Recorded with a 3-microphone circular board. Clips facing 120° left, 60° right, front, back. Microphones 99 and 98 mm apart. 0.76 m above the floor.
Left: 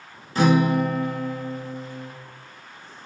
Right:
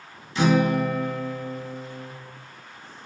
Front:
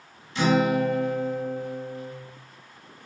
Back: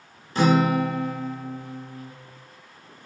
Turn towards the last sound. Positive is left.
turn(degrees=150)